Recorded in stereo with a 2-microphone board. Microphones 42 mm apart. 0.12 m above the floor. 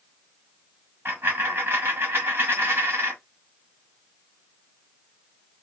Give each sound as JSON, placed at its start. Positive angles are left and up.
{"t": 1.1, "sound": "a dropped coin", "side_deg": -60, "distance_m": 1.7}